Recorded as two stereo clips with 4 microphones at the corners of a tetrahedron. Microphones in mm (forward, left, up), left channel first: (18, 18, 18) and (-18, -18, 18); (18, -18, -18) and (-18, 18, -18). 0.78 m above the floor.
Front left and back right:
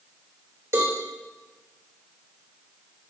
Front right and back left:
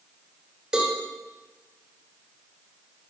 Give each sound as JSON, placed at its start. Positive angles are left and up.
{"t": 0.7, "sound": "a cowbell", "azimuth_deg": -145, "distance_m": 2.5}